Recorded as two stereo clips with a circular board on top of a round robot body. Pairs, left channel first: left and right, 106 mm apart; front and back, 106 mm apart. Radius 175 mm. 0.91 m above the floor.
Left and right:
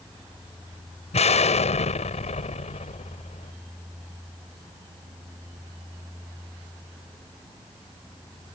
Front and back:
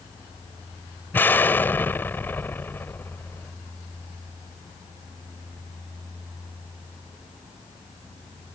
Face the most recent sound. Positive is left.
turn(degrees=75)